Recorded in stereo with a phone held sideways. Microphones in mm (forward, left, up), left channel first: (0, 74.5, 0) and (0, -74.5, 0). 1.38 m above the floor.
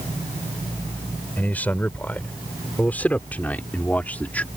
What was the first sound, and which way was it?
A man speaking, 10° left (ahead or behind).